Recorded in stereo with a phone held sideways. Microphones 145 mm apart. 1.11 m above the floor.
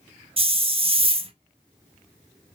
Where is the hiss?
40° right (ahead or behind), 0.6 m.